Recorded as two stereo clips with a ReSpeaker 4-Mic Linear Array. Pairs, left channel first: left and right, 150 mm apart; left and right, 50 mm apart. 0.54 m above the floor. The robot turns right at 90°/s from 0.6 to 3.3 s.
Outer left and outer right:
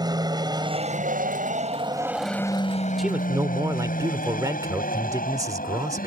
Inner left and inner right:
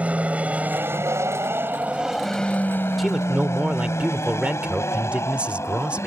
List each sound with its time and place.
0.0 s an aircraft: 25° right (ahead or behind); by 6.1 s 70° left (ahead or behind)
3.0 s a man speaking: centre (ahead or behind); by 6.1 s 25° right (ahead or behind)